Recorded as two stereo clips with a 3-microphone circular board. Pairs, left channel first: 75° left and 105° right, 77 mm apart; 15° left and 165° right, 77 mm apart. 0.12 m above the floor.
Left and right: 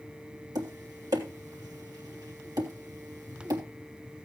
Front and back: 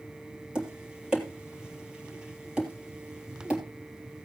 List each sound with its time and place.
0.6 s tapping: 90° right, 3 m